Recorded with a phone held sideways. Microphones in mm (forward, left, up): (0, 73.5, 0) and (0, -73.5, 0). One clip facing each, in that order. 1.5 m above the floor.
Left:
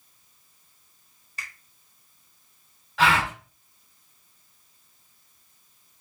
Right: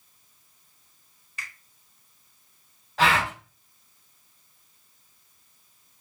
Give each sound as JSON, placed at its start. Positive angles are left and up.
{"t": 1.4, "sound": "a finger snap", "side_deg": 40, "distance_m": 1.4}
{"t": 3.0, "sound": "a gasp", "side_deg": -40, "distance_m": 2.0}